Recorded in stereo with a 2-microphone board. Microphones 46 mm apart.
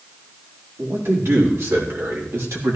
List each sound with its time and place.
0.8 s a man speaking: 80° right, 4.5 m; by 2.8 s 75° right (ahead or behind), 3 m